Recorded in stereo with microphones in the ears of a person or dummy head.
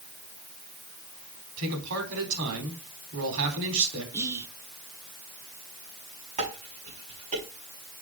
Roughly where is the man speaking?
Right.